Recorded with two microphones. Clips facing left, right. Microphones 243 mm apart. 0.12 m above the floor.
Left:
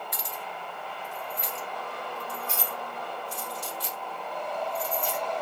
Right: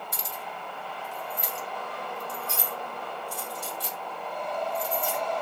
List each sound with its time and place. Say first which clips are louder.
0.1 s keys jangling: even; 30° right (ahead or behind), 1.3 m; by 5.2 s 60° right (ahead or behind), 3 m